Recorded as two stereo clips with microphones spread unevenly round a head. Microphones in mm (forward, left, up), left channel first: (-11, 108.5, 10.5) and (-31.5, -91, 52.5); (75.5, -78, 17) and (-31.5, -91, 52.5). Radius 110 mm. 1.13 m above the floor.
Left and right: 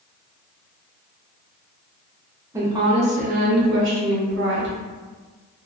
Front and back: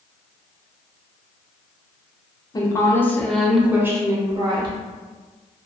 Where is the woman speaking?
10° right, 0.8 m; by 4.8 s 120° right, 1.0 m.